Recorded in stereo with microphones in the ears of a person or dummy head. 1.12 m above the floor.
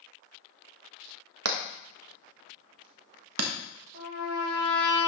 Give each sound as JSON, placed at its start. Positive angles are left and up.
{"t": 1.4, "sound": "hammering", "side_deg": -85, "distance_m": 1.0}
{"t": 3.9, "sound": "a trumpet", "side_deg": -55, "distance_m": 5.0}